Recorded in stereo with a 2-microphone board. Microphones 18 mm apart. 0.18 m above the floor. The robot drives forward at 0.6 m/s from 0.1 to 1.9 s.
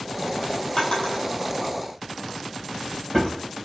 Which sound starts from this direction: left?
A drawer, at 0.8 s.